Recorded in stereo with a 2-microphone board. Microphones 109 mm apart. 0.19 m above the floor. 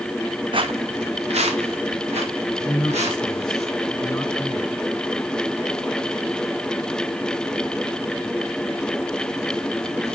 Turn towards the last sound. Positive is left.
turn(degrees=5)  # may be behind; listen again after turning